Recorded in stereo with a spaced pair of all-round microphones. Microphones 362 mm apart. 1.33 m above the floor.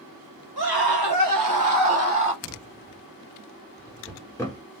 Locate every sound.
0.6 s a scream: 80° right, 1.6 m; by 2.3 s 30° right (ahead or behind), 1.4 m
2.4 s a drawer: 5° left (ahead or behind), 1.5 m